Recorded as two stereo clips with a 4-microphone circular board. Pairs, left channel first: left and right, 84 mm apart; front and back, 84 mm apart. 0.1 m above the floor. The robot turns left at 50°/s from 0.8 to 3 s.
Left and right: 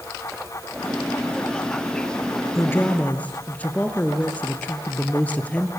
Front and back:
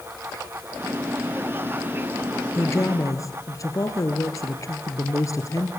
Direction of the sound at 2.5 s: 45° left.